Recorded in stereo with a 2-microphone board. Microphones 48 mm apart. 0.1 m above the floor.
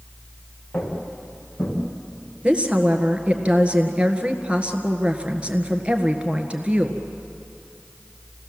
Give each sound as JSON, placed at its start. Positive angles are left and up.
{"t": 0.7, "sound": "footsteps", "side_deg": 20, "distance_m": 5.5}
{"t": 2.4, "sound": "a woman speaking", "side_deg": -25, "distance_m": 1.6}